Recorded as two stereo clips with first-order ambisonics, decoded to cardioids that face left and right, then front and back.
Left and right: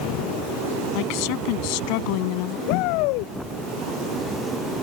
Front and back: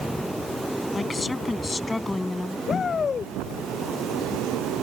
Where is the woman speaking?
75° left; by 2.6 s 80° left.